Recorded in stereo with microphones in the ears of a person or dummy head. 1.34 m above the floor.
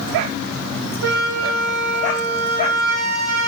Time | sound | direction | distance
1.0 | a flute | 80° right | 5 m